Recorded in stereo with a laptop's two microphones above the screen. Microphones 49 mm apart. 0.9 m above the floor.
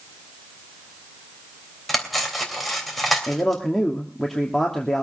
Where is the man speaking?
5° left (ahead or behind), 2.5 m.